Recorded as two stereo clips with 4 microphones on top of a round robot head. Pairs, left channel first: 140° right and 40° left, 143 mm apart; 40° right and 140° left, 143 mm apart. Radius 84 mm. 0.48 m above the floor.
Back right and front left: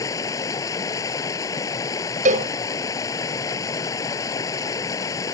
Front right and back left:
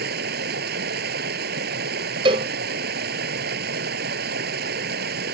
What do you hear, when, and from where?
0.0 s running water: 155° left
2.2 s a cowbell: 80° left